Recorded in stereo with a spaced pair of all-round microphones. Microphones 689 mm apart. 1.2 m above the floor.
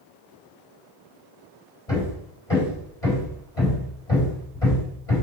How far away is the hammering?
About 4 m.